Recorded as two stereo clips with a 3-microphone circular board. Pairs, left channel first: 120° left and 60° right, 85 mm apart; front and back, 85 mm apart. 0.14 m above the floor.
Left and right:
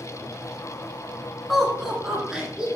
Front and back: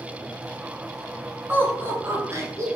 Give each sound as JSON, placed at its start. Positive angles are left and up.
{"t": 1.5, "sound": "laughter", "azimuth_deg": -155, "distance_m": 1.2}